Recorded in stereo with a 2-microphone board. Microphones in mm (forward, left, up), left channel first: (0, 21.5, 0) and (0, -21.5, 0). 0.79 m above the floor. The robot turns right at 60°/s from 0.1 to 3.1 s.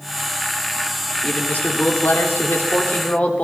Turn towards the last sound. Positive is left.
turn(degrees=140)